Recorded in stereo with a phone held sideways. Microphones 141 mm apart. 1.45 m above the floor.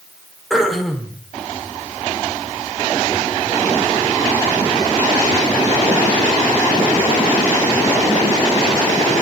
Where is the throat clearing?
Centre (ahead or behind), 2.5 m.